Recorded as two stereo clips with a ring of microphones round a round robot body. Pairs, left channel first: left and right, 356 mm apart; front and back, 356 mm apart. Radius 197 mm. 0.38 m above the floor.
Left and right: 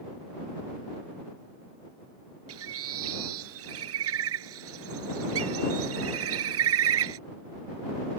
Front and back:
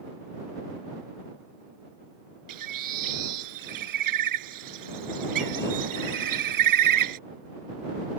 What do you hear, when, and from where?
2.5 s a bird: 145° right